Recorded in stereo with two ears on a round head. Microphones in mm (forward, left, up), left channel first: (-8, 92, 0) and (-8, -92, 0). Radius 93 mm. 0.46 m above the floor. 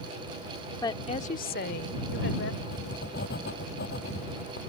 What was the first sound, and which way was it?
A woman speaking, 15° left (ahead or behind).